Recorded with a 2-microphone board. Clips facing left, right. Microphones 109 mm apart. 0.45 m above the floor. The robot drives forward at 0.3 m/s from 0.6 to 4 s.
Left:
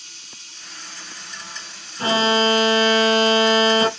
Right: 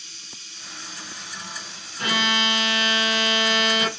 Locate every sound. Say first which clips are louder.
0.0 s running water: even; 75° left (ahead or behind), 5 m; by 4.0 s 80° left, 5 m
2.0 s an alarm: left 7 dB; 30° left (ahead or behind), 0.6 m; by 3.9 s 35° left (ahead or behind), 0.6 m